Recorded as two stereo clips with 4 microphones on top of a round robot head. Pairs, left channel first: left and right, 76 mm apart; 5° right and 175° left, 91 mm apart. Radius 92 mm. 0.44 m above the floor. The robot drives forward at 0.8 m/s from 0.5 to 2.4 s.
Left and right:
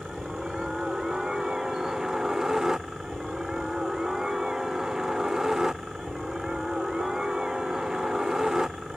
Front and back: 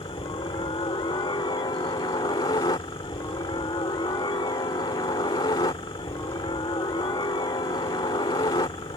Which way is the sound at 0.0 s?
5° right.